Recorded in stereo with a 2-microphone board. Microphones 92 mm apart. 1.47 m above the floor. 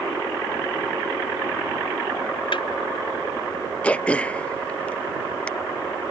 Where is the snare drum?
70° left (ahead or behind).